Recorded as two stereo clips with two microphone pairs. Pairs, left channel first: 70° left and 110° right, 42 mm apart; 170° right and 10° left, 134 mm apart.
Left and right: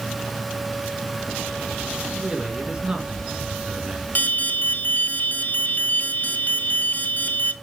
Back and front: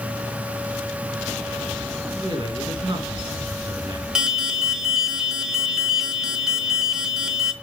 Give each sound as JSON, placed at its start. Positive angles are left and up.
{"t": 2.1, "sound": "a man speaking", "azimuth_deg": -40, "distance_m": 3.0}
{"t": 4.2, "sound": "an alarm", "azimuth_deg": 90, "distance_m": 1.5}